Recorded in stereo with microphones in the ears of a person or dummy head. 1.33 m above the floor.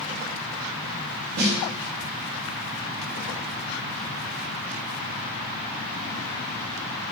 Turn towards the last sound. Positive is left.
turn(degrees=-55)  # may be behind; listen again after turning